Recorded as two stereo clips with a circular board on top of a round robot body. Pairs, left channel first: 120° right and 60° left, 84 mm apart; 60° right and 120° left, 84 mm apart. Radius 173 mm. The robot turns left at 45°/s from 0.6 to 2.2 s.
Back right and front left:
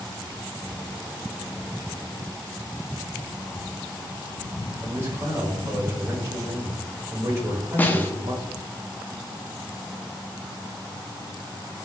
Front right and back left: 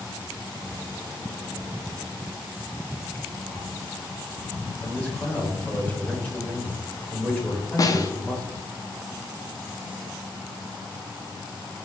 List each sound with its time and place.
4.8 s a man speaking: 10° left, 1.6 m
7.8 s a snare drum: 60° right, 0.7 m